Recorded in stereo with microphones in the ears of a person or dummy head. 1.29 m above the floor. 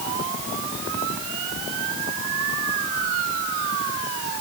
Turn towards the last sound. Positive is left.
No sound to turn to.